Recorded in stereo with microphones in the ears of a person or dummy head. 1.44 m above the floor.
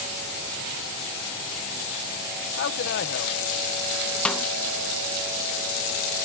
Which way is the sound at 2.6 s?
55° left (ahead or behind).